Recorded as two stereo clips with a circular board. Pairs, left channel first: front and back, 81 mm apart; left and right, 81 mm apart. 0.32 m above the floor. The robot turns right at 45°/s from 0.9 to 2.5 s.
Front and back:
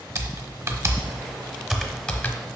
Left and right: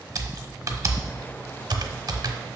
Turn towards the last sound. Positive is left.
turn(degrees=-60)